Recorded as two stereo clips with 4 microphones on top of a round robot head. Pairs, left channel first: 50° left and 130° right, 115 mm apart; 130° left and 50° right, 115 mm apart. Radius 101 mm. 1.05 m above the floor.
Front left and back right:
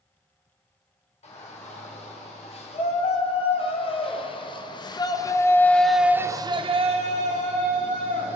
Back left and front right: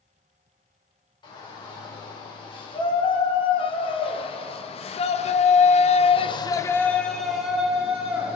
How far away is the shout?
About 4.5 m.